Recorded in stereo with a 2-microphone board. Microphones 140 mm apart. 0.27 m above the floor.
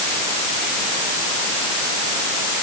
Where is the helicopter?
No helicopter in this recording.